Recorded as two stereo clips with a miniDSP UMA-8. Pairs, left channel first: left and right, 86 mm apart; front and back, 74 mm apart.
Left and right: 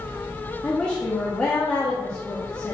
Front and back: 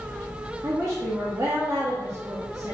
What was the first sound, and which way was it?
A woman speaking, 165° left.